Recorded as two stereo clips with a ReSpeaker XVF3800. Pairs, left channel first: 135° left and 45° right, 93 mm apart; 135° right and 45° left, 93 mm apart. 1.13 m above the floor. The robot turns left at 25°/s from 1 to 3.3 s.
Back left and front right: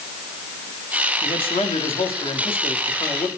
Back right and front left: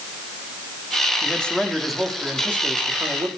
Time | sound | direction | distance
1.2 | a man speaking | 150° left | 3 m